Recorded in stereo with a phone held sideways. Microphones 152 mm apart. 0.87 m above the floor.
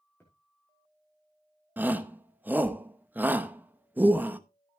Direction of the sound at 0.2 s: 15° left (ahead or behind).